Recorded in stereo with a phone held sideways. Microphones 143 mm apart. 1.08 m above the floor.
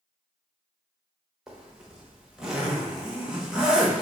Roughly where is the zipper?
Centre.